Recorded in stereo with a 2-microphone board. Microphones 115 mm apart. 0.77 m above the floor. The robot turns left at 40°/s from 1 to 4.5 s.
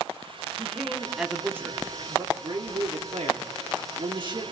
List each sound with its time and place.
0.6 s a man speaking: straight ahead, 1.6 m; by 4.4 s 135° right, 1.6 m